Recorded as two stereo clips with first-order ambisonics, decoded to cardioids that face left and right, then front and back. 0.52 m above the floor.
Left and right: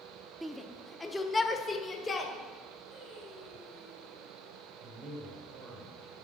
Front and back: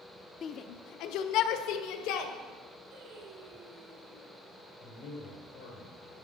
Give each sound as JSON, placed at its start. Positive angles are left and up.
{"t": 0.4, "sound": "a shout", "azimuth_deg": -15, "distance_m": 0.7}
{"t": 2.9, "sound": "singing", "azimuth_deg": 150, "distance_m": 5.5}
{"t": 4.8, "sound": "a man speaking", "azimuth_deg": -35, "distance_m": 7.0}